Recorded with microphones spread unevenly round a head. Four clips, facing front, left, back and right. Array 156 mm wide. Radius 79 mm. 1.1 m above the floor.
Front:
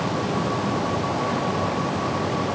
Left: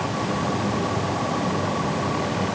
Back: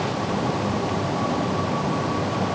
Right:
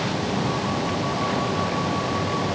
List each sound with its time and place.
Only background noise.